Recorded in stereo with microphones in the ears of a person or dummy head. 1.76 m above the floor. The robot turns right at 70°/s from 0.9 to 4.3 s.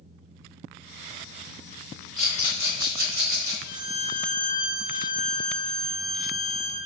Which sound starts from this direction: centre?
A rattle, at 2.2 s.